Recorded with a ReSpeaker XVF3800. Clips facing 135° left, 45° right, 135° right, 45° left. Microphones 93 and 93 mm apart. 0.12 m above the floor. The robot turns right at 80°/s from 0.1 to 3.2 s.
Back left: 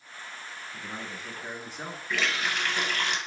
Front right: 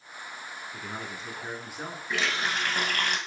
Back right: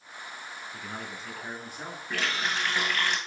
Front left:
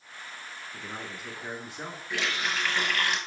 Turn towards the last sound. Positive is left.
turn(degrees=-25)